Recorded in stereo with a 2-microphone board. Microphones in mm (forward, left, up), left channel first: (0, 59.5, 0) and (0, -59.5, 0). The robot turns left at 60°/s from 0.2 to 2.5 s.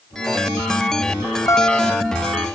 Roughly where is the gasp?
I don't hear a gasp.